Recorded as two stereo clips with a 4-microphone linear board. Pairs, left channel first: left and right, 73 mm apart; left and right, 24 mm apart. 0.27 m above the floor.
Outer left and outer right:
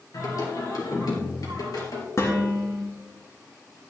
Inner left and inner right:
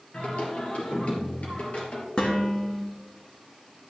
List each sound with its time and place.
0.1 s singing: 60° left (ahead or behind), 3 m
2.2 s dishes clattering: 45° left (ahead or behind), 2.5 m